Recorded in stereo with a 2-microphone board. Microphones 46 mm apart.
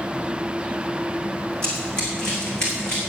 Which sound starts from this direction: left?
Running footsteps, at 1.6 s.